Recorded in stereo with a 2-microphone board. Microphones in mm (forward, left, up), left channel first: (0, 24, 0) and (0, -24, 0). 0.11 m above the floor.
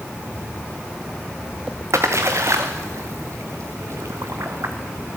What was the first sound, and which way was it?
A splash, 75° right (ahead or behind).